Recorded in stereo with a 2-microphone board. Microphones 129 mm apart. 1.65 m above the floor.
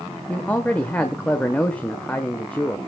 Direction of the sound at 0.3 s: 10° left (ahead or behind).